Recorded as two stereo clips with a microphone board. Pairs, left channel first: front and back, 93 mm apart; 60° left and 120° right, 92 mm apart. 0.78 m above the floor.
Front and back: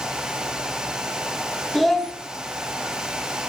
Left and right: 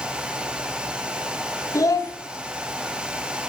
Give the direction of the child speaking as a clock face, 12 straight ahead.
9 o'clock.